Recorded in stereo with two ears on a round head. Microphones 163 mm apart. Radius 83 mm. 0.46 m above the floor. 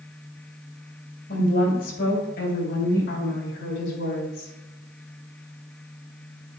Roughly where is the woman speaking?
Left.